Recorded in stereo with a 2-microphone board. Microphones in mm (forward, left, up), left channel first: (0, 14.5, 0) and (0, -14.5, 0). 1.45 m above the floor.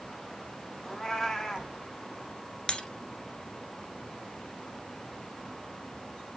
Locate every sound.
0.8 s a cat meowing: 5° left (ahead or behind), 1.7 m
2.7 s breaking glass: 25° left (ahead or behind), 1.6 m